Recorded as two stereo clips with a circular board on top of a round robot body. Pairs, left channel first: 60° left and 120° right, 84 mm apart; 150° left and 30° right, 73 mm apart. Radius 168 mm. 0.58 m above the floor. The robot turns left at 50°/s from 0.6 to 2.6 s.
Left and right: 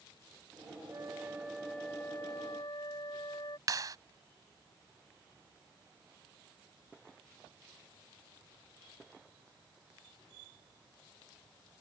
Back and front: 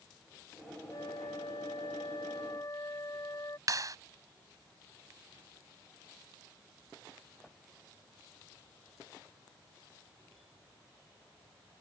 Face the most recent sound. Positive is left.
turn(degrees=-70)